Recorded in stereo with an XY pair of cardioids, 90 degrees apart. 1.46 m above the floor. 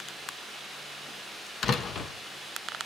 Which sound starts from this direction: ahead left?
A door slam, at 1.6 s.